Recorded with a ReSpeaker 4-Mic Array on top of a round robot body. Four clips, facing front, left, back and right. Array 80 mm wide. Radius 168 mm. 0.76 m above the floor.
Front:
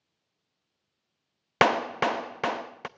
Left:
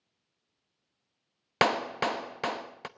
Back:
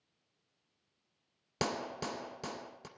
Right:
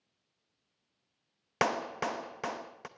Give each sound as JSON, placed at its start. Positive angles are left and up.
{"t": 1.6, "sound": "a clap", "azimuth_deg": 15, "distance_m": 0.9}